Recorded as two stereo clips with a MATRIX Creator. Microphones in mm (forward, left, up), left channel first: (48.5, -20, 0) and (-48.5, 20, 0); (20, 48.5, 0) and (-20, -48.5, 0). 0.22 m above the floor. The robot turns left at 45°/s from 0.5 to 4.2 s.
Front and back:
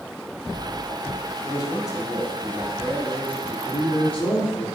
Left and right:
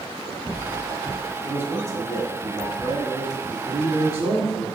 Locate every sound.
1.4 s a man speaking: 45° right, 1.4 m; by 3.6 s 145° right, 1.4 m
3.7 s a man speaking: 80° right, 2.5 m; by 4.7 s 100° right, 2.5 m